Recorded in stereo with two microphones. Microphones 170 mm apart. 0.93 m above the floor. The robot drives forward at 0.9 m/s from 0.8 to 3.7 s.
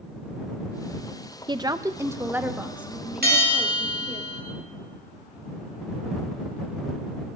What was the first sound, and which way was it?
A woman speaking, 25° right (ahead or behind).